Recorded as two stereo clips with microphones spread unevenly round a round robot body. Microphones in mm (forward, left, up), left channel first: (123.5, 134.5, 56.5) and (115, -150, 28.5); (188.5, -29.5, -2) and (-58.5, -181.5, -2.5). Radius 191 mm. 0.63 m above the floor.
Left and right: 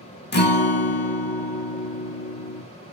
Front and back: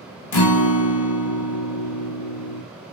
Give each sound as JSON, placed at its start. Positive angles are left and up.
{"t": 0.3, "sound": "a guitar", "azimuth_deg": 30, "distance_m": 0.9}